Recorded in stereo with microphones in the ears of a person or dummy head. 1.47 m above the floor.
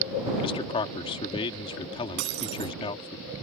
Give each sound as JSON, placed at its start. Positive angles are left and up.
{"t": 0.4, "sound": "a man speaking", "side_deg": 30}
{"t": 2.2, "sound": "breaking glass", "side_deg": -65}